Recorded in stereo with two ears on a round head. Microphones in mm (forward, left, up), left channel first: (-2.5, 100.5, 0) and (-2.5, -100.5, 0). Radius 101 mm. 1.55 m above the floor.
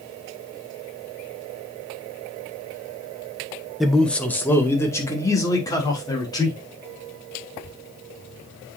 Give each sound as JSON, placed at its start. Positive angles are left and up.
{"t": 3.8, "sound": "a man speaking", "side_deg": 0, "distance_m": 1.2}